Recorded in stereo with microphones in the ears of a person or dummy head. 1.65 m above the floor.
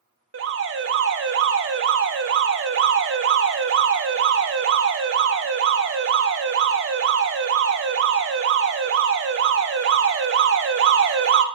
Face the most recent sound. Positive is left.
turn(degrees=-60)  # may be behind; listen again after turning